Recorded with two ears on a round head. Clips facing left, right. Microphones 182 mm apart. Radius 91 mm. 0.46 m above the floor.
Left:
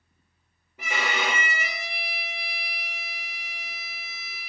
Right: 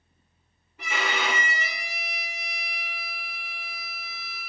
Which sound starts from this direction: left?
A violin, at 0.8 s.